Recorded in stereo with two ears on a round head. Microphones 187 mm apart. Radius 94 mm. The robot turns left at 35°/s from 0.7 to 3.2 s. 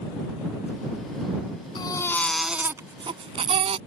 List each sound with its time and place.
1.8 s a baby crying: 20° left; by 3.8 s 30° right